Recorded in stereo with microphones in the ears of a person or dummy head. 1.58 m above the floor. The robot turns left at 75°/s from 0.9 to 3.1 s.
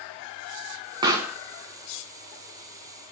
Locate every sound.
1.0 s a pop: 25° right (ahead or behind), 1.3 m; by 1.4 s centre (ahead or behind), 1.3 m